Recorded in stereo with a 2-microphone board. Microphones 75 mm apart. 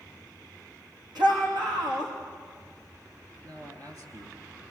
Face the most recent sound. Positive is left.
turn(degrees=-55)  # may be behind; listen again after turning